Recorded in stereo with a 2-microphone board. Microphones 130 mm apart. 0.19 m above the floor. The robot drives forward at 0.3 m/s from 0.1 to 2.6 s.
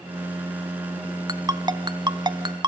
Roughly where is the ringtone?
Right.